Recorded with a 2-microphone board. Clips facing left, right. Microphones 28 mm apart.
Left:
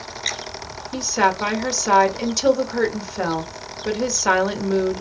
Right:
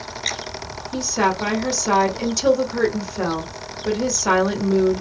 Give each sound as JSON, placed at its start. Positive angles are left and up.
{"t": 0.9, "sound": "a woman speaking", "side_deg": 15, "distance_m": 1.2}